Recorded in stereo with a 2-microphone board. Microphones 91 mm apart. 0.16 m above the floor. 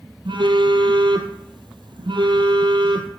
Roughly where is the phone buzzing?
Right.